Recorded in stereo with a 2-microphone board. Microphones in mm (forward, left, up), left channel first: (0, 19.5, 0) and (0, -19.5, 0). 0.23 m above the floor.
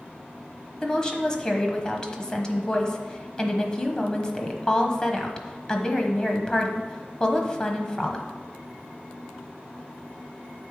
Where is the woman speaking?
20° left (ahead or behind), 1.0 m.